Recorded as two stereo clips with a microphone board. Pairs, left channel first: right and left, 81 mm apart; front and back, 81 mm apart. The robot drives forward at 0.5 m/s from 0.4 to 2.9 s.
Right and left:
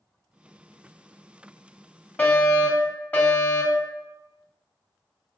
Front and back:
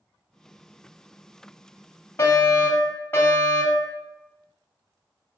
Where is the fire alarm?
35° right, 2.5 m; by 3.9 s 40° right, 2.5 m.